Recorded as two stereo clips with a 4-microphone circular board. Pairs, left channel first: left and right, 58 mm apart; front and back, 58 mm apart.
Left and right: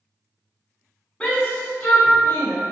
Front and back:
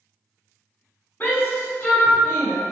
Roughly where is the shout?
Ahead left.